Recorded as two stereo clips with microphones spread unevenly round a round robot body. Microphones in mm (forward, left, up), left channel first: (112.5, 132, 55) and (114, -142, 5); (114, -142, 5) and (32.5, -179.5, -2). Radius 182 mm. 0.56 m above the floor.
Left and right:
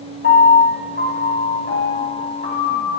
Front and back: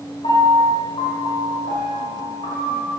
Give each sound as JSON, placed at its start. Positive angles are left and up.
{"t": 0.2, "sound": "a piano", "azimuth_deg": 35, "distance_m": 5.5}